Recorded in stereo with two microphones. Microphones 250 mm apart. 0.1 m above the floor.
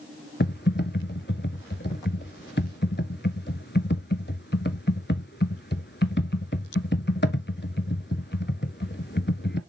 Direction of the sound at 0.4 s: 45° left (ahead or behind).